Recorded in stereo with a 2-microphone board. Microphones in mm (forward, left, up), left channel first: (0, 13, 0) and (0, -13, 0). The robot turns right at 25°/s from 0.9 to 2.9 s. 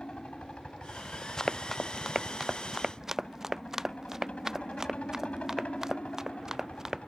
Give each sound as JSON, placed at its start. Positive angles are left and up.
{"t": 0.0, "sound": "a helicopter", "azimuth_deg": 55}
{"t": 1.4, "sound": "running footsteps", "side_deg": 30}